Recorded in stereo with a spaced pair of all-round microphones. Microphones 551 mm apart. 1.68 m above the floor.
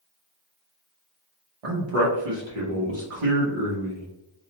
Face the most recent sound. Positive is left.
turn(degrees=-75)  # may be behind; listen again after turning